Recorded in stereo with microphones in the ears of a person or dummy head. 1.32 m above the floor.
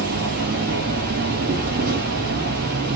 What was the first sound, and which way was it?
An insect, 55° right (ahead or behind).